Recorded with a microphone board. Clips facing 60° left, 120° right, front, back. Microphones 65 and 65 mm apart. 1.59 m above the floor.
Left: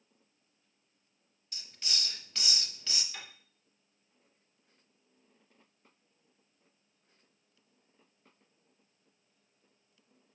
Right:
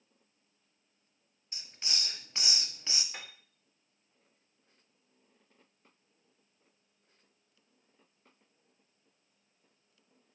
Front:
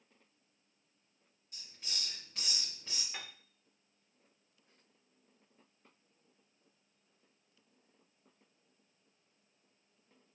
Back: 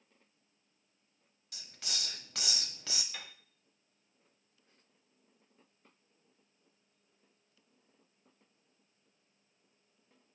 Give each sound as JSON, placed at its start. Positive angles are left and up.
{"t": 1.5, "sound": "a hiss", "azimuth_deg": 175, "distance_m": 0.7}
{"t": 3.1, "sound": "a piano", "azimuth_deg": -70, "distance_m": 1.7}